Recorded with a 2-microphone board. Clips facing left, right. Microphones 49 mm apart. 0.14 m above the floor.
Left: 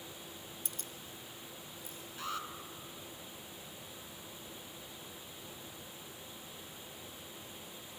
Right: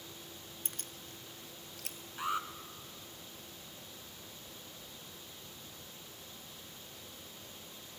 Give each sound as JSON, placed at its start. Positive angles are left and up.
{"t": 0.7, "sound": "keys jangling", "side_deg": -40, "distance_m": 1.0}
{"t": 2.2, "sound": "an alarm", "side_deg": -20, "distance_m": 1.7}